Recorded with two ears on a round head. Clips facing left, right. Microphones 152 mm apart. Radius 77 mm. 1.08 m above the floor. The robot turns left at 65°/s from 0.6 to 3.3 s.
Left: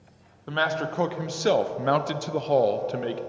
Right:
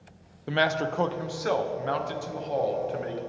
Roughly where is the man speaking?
Behind.